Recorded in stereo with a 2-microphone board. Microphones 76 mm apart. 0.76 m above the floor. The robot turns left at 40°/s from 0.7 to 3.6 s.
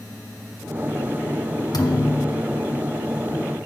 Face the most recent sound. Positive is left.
turn(degrees=-5)